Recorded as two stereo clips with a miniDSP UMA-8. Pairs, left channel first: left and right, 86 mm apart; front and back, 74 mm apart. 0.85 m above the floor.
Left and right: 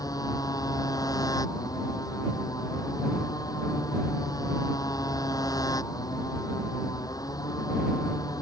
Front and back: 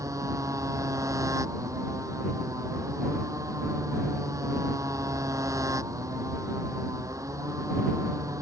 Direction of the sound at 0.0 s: 135° left.